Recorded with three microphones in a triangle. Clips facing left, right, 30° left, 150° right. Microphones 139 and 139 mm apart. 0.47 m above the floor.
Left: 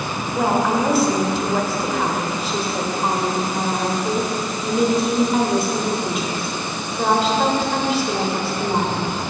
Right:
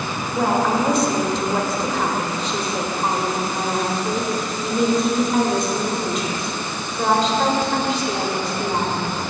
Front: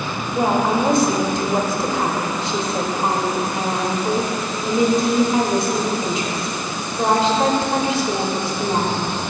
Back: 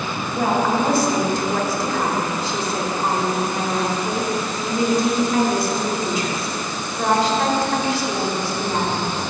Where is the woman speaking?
10° left, 1.0 m.